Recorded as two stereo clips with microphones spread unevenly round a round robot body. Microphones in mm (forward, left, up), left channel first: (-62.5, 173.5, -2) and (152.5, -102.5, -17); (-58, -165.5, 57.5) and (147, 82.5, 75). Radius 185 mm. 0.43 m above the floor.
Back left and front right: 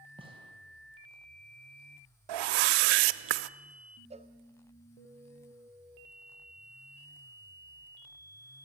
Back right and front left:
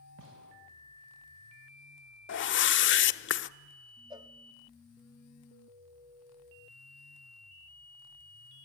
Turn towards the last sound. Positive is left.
turn(degrees=-15)